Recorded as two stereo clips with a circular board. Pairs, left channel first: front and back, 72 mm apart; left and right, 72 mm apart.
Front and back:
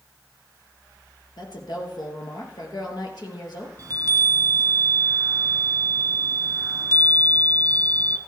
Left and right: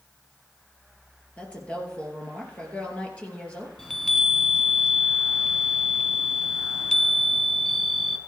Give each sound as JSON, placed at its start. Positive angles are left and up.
{"t": 1.4, "sound": "a woman speaking", "azimuth_deg": 15, "distance_m": 4.0}
{"t": 3.8, "sound": "a chime", "azimuth_deg": 170, "distance_m": 1.5}